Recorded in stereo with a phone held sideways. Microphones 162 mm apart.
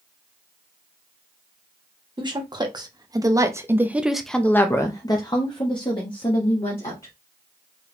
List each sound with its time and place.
2.2 s a woman speaking: 30° right (ahead or behind), 1.4 m; by 7.1 s 35° left (ahead or behind), 1.7 m